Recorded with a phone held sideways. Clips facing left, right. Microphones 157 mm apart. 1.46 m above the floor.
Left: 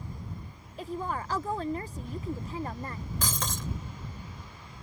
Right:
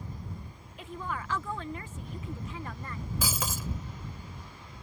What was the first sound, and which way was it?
A woman speaking, 35° left (ahead or behind).